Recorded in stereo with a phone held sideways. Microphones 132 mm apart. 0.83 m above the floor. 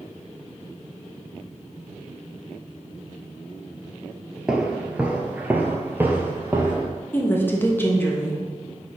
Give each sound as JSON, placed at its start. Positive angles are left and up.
{"t": 4.5, "sound": "footsteps", "side_deg": -5, "distance_m": 0.8}
{"t": 7.1, "sound": "a woman speaking", "side_deg": 15, "distance_m": 1.0}